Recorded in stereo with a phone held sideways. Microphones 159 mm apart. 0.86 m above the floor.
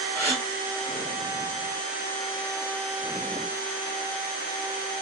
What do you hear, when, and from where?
0.1 s a gasp: 15° left (ahead or behind), 1.3 m